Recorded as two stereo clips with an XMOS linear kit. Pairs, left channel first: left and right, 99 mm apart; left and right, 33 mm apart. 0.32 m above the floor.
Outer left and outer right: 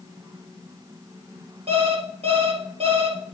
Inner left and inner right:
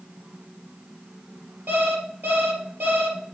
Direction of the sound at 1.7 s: 80° right.